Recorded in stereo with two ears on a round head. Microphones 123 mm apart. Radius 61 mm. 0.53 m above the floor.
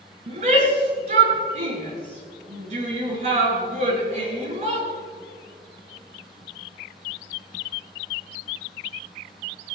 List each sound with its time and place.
0.3 s a shout: 50° right (ahead or behind), 6.5 m